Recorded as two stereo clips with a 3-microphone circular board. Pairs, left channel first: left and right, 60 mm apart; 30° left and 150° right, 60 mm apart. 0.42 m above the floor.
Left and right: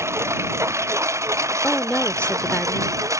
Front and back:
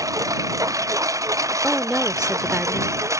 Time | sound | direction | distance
0.0 | a lawn mower | 130° right | ?
1.6 | a woman speaking | 140° left | ?